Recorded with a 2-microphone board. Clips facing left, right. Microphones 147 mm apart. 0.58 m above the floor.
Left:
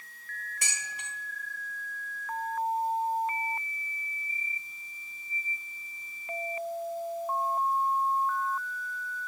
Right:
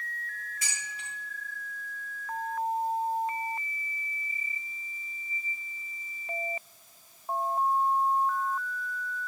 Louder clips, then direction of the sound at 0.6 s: Left 1 dB; 75° left (ahead or behind).